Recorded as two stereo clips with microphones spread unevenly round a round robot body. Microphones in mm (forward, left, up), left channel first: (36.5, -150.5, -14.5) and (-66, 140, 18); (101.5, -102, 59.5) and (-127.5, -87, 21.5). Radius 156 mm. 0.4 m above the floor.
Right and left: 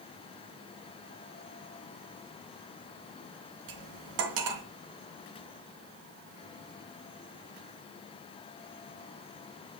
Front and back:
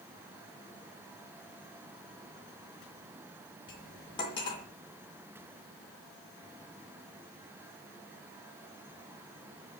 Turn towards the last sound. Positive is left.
turn(degrees=75)